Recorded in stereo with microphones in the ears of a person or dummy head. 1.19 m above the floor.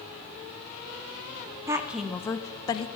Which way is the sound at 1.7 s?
15° right (ahead or behind).